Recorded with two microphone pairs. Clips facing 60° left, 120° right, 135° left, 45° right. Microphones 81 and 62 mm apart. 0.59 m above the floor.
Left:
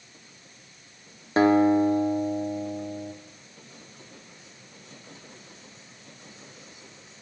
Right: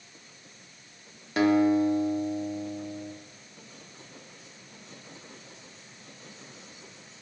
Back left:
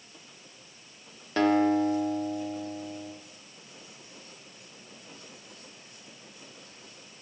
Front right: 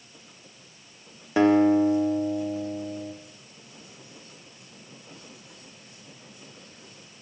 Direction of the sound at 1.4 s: 25° left.